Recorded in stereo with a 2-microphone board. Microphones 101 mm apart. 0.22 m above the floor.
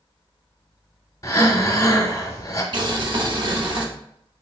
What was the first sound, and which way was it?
Breathing, 35° left (ahead or behind).